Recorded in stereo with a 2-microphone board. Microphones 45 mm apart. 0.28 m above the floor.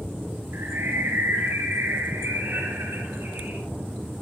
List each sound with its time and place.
0.5 s a bird: 55° right (ahead or behind), 5 m